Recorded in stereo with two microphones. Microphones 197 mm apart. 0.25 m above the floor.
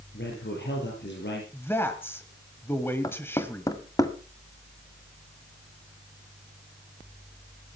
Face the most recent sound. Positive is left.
turn(degrees=20)  # may be behind; listen again after turning